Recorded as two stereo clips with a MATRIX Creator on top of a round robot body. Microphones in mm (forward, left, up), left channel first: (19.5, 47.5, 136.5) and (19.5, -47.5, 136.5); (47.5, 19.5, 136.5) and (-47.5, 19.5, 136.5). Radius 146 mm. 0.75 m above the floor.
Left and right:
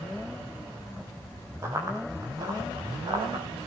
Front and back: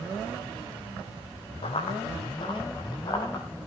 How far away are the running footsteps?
About 3.5 m.